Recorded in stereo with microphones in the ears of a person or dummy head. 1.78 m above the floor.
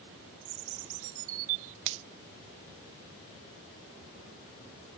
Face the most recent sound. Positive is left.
turn(degrees=-70)  # may be behind; listen again after turning